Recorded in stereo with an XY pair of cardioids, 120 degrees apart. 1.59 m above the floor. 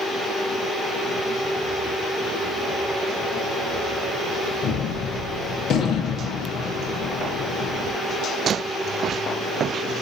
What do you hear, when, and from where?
4.6 s a gunshot: 60° left, 1.1 m